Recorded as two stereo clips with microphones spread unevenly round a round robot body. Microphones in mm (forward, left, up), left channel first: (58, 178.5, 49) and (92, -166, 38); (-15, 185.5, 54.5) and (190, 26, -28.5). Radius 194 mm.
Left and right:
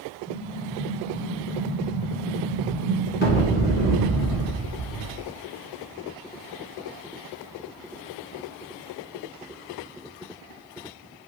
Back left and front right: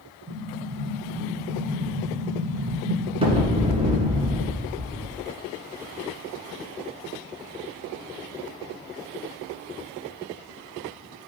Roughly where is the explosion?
Ahead left.